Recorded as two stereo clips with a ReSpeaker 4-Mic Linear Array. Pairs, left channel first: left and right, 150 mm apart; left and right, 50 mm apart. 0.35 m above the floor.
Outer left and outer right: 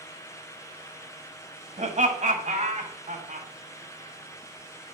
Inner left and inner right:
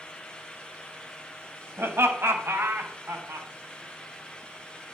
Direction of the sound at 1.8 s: 55° right (ahead or behind).